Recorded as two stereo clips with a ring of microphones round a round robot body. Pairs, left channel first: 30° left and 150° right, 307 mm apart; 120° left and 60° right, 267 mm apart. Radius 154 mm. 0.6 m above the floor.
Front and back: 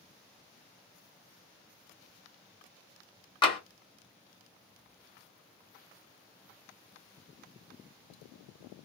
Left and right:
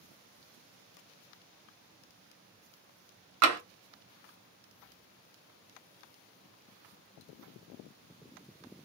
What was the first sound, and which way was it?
Tapping, 45° right.